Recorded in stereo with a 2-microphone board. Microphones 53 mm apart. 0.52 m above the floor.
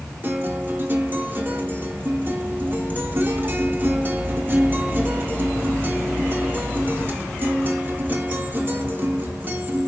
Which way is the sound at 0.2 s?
35° right (ahead or behind).